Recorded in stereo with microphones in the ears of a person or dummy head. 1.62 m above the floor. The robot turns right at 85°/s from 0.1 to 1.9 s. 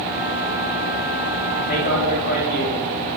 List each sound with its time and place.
1.7 s a man speaking: 60° left (ahead or behind), 3.5 m; by 3.1 s 40° left (ahead or behind), 3.5 m